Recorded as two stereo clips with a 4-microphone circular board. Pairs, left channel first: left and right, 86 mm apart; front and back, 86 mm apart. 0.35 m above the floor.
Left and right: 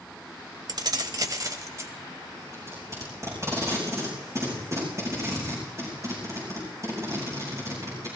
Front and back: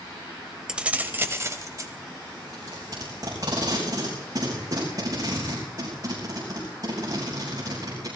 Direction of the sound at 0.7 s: 100° right.